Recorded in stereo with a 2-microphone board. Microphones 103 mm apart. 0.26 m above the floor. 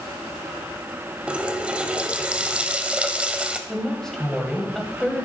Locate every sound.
1.3 s a running tap: 10° right (ahead or behind), 0.6 m
3.7 s a woman speaking: 5° left (ahead or behind), 1.2 m